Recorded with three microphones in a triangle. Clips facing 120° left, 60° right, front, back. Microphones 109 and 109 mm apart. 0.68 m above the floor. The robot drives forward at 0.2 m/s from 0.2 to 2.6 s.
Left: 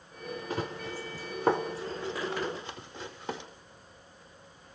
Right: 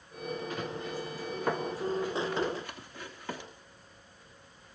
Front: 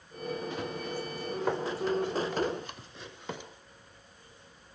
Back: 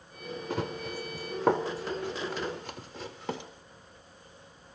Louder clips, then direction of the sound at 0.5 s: Left 1 dB, back 2 dB; 175° left.